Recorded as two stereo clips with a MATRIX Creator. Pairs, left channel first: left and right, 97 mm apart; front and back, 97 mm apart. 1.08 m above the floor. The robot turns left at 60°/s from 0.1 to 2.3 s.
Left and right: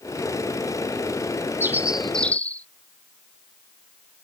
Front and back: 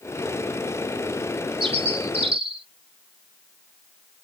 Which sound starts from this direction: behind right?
A bird, at 1.6 s.